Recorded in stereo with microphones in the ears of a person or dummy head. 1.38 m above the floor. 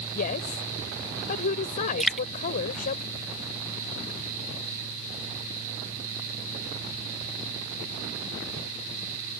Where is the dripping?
5° right (ahead or behind).